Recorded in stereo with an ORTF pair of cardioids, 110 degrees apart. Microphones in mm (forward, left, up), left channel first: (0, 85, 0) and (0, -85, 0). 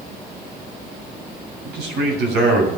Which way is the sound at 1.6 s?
70° right.